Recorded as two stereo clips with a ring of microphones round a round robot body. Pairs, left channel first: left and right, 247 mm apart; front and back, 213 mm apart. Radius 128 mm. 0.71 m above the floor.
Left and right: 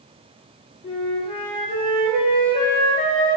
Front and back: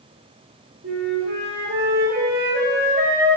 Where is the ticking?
No ticking in this recording.